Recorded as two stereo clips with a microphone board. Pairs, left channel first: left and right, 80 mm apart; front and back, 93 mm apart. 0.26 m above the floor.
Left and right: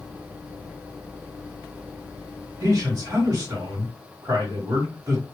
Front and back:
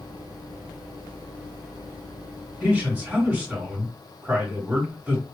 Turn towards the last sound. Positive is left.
turn(degrees=-115)